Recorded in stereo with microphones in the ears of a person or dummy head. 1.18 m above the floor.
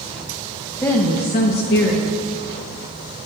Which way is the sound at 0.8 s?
10° left (ahead or behind).